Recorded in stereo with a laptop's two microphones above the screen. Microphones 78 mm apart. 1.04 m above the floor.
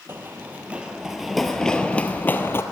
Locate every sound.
0.1 s running footsteps: 30° right (ahead or behind), 1.3 m; by 2.6 s 35° left (ahead or behind), 1.3 m